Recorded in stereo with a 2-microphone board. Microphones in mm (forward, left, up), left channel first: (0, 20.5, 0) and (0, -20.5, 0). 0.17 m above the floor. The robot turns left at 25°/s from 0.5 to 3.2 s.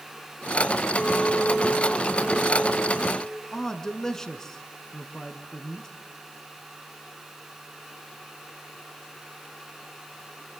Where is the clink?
25° left, 4.5 m; by 3.4 s 30° right, 4.5 m.